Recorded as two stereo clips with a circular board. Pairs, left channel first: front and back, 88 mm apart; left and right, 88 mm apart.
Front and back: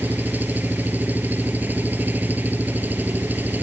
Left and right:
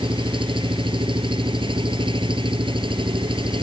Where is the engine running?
110° right.